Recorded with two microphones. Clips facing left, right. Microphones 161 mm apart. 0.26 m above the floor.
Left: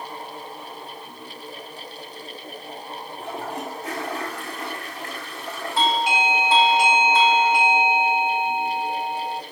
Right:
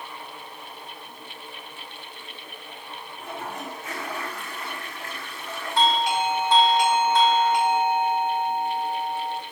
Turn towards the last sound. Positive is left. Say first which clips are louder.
# even
turn(degrees=0)  # may be behind; listen again after turning